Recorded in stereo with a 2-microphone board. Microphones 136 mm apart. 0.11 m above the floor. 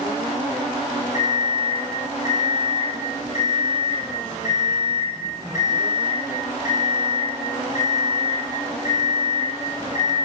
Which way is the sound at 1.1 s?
60° left (ahead or behind).